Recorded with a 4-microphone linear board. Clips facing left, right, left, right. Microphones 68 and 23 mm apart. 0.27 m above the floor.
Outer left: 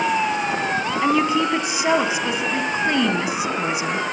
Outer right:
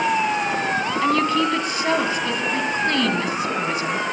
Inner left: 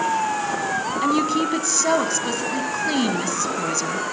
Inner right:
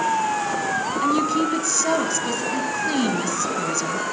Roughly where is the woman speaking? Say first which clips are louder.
Outer left 1 dB, even; centre.